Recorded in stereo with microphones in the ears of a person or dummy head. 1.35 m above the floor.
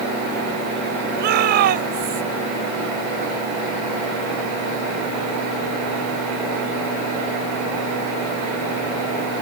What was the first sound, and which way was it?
A shout, 55° right (ahead or behind).